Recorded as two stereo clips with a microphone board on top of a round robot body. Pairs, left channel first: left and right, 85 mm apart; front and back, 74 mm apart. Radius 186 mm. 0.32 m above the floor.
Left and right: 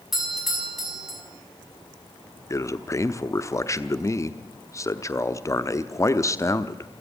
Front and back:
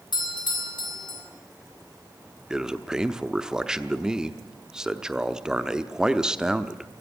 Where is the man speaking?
105° left, 1.1 m.